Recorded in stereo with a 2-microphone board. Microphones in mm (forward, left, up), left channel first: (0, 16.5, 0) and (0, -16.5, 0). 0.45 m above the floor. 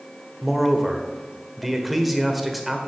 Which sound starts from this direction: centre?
A man speaking, at 0.4 s.